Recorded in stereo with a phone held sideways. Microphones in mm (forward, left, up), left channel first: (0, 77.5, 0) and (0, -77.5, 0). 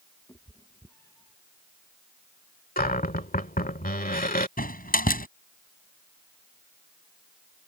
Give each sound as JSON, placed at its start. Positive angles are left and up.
{"t": 0.3, "sound": "a cat meowing", "side_deg": 20}
{"t": 2.8, "sound": "a cupboard door", "side_deg": 65}
{"t": 4.6, "sound": "a door slam", "side_deg": 65}